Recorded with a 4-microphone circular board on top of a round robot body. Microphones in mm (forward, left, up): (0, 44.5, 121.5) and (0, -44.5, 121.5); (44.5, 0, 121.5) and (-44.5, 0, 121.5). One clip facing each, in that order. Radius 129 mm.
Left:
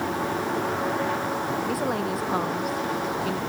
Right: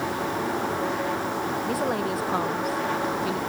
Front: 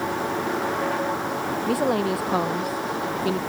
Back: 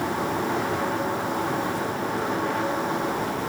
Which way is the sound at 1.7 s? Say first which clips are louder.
Even, front 5 dB; straight ahead.